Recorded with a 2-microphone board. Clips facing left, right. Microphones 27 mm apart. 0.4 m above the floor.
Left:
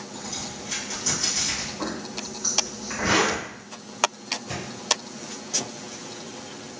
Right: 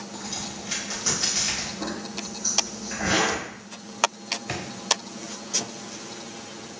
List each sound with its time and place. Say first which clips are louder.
0.1 s a crack: even; 35° right (ahead or behind), 1.6 m
1.8 s a zipper: left 1 dB; 50° left (ahead or behind), 1.7 m
4.5 s a drawer: right 1 dB; 80° right, 0.9 m